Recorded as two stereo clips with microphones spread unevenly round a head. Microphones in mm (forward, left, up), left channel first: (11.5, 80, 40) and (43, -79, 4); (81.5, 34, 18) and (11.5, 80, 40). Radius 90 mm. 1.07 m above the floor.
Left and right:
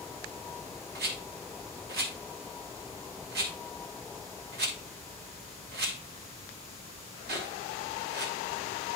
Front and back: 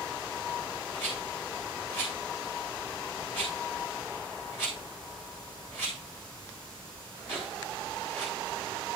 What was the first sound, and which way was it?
A rattle, 115° right.